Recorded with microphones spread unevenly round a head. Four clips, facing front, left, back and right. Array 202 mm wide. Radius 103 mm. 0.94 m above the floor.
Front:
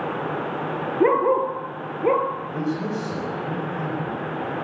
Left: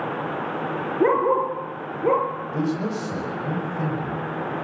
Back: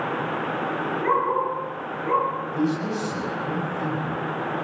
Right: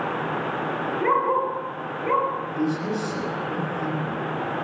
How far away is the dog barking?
About 4 m.